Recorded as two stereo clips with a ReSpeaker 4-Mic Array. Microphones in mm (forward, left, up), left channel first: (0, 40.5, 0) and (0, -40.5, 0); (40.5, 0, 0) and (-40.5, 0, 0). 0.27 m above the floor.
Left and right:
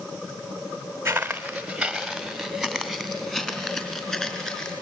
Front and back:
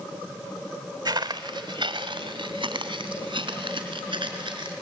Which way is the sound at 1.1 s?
155° right.